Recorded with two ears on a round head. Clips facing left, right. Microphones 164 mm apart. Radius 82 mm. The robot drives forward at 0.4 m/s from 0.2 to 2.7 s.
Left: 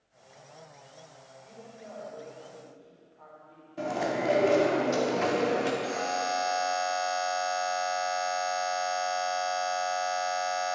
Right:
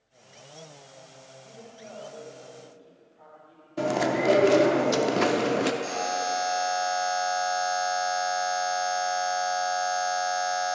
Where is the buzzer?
55° right (ahead or behind), 1.2 m.